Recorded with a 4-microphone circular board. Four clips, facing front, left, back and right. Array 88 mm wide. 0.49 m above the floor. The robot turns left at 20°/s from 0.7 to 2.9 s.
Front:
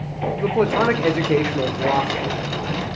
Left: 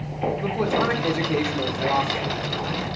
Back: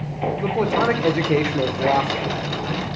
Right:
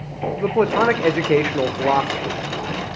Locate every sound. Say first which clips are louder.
0.4 s a man speaking: right 8 dB, front 3 dB; 75° right, 1.1 m; by 2.4 s 110° right, 1.1 m